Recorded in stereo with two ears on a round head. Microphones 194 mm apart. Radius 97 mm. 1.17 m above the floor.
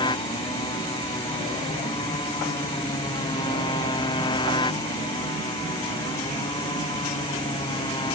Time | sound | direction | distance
0.0 | a motorcycle | 20° left (ahead or behind) | ?